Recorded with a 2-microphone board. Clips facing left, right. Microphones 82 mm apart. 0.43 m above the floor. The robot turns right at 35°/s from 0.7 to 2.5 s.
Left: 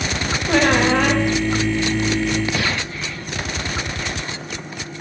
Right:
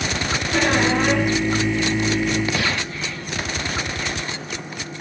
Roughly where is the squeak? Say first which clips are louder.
Left 4 dB; left.